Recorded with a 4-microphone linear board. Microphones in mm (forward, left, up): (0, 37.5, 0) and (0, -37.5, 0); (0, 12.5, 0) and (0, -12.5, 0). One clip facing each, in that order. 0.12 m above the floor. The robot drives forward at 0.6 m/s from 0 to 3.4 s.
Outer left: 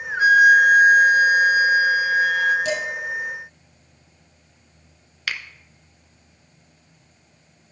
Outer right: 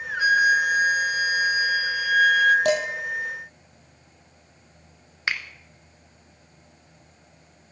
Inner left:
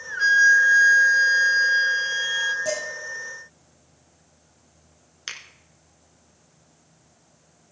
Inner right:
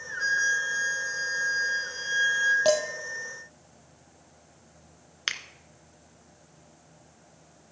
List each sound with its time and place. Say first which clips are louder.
0.2 s a flute: outer left 7 dB, inner left 10 dB; 40° left (ahead or behind), 0.8 m; by 2.5 s 25° left (ahead or behind), 1.2 m
2.6 s dishes clattering: outer right 3 dB, inner right 5 dB; 60° right (ahead or behind), 2.5 m; by 2.8 s 55° right (ahead or behind), 2.5 m
5.3 s a finger snap: outer right 2 dB, inner right 4 dB; 30° right (ahead or behind), 1.0 m